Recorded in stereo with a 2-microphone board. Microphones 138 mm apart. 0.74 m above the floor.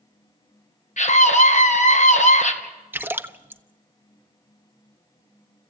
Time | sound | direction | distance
1.0 | a scream | 60° left (ahead or behind) | 3 m
2.9 | a splash | 15° right (ahead or behind) | 0.8 m